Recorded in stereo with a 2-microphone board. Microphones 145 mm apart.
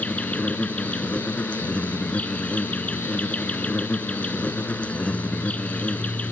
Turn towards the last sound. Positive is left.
turn(degrees=10)  # may be behind; listen again after turning